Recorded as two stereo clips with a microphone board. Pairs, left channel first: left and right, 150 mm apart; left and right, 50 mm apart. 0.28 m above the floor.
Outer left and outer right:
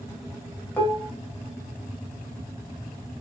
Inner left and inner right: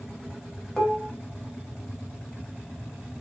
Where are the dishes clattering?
10° left (ahead or behind), 0.7 m.